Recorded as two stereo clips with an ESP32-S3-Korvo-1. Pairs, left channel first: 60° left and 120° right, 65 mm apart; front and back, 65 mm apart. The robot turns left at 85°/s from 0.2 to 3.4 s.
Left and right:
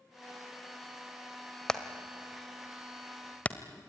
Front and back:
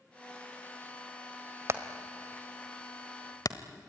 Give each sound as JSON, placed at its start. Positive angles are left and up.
{"t": 1.7, "sound": "hammering", "azimuth_deg": 140, "distance_m": 1.4}